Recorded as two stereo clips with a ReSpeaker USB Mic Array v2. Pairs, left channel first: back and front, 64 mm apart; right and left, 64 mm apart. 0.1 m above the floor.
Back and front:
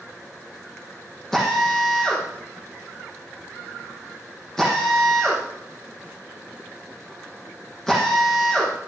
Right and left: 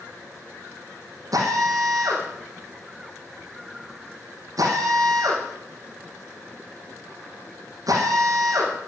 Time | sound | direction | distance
1.3 | a drill | 100° left | 5.5 m